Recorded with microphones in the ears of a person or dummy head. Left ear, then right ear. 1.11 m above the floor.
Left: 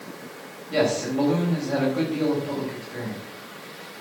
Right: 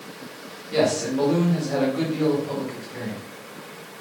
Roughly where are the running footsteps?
No running footsteps in this recording.